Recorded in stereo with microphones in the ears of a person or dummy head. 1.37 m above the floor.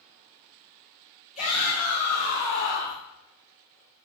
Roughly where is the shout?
Left.